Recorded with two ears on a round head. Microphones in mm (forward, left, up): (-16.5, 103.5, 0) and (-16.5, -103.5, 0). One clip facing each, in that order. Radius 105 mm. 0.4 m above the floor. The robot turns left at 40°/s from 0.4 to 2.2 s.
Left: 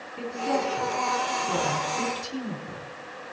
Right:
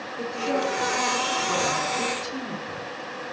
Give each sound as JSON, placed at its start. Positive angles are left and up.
{"t": 0.2, "sound": "a woman speaking", "side_deg": 75, "distance_m": 3.5}